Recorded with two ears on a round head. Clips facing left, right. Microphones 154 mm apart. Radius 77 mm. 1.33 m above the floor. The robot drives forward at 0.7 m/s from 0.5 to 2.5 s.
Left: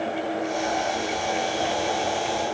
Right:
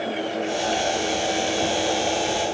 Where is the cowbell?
No cowbell in this recording.